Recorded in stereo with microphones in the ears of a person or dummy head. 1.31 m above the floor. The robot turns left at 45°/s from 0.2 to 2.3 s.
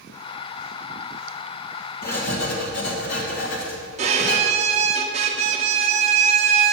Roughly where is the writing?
Left.